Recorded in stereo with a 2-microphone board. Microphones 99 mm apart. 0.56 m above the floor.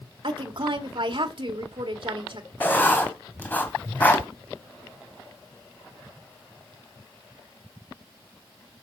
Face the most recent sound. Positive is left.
turn(degrees=20)  # may be behind; listen again after turning